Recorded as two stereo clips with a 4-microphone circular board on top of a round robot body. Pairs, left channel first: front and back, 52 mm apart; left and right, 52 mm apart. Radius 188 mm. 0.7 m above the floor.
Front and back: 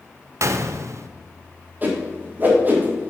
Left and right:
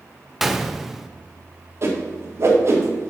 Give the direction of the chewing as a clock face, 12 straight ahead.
No chewing in this recording.